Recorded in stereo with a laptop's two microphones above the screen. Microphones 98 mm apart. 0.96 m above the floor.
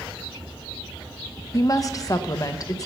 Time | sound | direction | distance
1.5 | a woman speaking | 35° left (ahead or behind) | 0.7 m